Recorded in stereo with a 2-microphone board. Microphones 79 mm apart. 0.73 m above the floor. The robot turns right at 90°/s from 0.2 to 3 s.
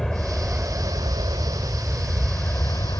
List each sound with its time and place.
0.0 s an aircraft: 175° left; by 3.0 s 70° left